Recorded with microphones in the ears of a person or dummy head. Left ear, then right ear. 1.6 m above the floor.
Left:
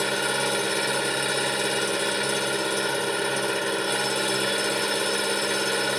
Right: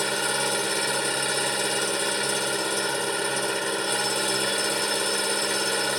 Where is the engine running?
10° right (ahead or behind).